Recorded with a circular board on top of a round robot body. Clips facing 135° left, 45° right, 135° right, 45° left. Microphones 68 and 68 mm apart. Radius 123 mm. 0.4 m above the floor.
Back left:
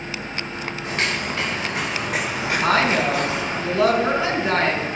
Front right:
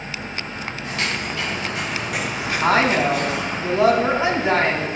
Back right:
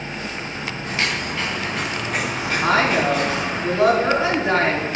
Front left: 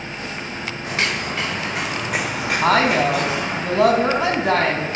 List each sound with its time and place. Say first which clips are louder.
0.8 s footsteps: back left 1 dB, front left 1 dB; 75° left, 6 m; by 3.6 s 70° left, 8 m
2.6 s a woman speaking: front right 2 dB, front left 2 dB; 20° left, 3.5 m